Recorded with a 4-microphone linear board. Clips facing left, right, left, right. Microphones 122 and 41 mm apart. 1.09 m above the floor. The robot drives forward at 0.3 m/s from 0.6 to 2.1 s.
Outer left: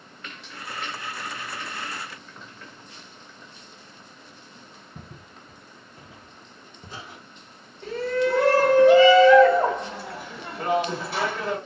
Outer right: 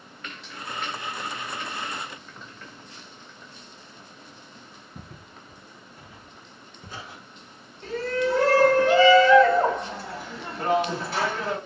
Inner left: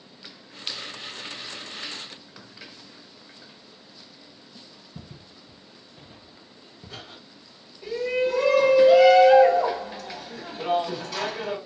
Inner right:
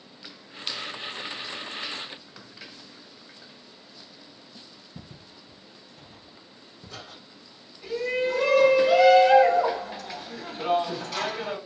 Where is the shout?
5° left (ahead or behind), 1.8 m.